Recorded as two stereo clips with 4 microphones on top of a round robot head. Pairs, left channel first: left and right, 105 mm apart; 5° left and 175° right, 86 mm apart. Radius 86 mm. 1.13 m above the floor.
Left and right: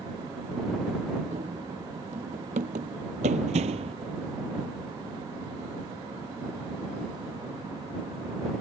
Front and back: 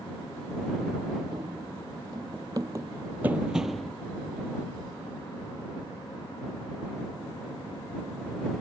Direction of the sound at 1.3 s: 125° right.